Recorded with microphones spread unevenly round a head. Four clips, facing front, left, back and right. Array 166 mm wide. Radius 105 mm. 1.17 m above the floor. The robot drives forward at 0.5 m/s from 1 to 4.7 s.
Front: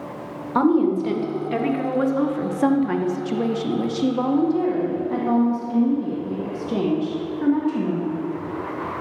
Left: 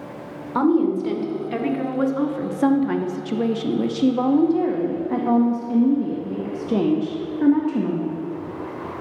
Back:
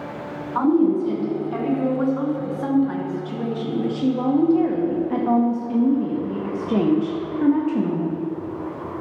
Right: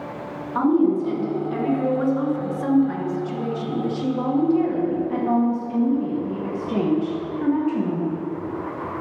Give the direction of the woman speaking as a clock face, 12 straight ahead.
11 o'clock.